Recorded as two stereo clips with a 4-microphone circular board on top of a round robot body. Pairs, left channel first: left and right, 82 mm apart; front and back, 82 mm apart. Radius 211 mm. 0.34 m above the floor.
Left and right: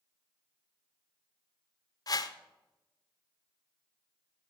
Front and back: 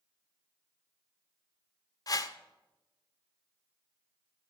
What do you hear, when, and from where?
2.1 s a whoosh: 45° left, 0.7 m